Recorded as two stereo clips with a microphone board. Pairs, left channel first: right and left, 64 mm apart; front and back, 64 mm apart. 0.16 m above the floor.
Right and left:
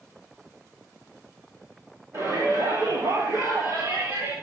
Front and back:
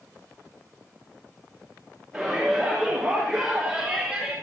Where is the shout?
90° left, 4 m; by 4.3 s 105° left, 3.5 m.